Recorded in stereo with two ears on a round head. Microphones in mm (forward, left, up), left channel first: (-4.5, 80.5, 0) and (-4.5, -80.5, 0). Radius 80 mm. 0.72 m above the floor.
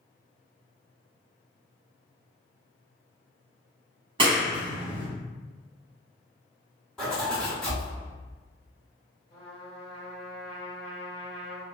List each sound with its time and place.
4.2 s a clap: 30° right (ahead or behind), 1.5 m
7.0 s a zipper: centre (ahead or behind), 1.4 m
9.3 s a trumpet: 30° left (ahead or behind), 1.4 m